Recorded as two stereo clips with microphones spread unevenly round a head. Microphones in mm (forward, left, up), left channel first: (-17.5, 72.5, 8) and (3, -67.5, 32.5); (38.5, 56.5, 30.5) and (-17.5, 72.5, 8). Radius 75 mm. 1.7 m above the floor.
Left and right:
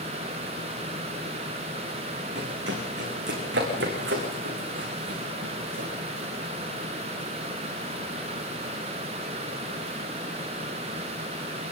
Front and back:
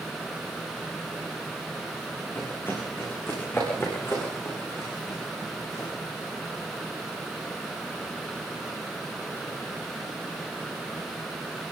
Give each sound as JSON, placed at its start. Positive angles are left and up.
{"t": 2.4, "sound": "running footsteps", "azimuth_deg": -85, "distance_m": 7.5}